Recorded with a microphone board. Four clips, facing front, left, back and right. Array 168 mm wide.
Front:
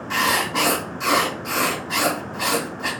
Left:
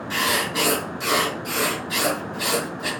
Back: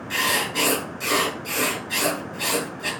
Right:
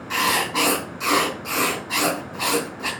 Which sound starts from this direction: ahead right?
Writing, at 0.1 s.